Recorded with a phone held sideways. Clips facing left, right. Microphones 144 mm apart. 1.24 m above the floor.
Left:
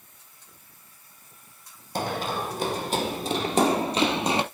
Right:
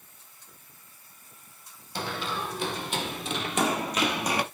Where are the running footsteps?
45° left (ahead or behind), 2.5 m; by 4.4 s 25° left (ahead or behind), 1.8 m.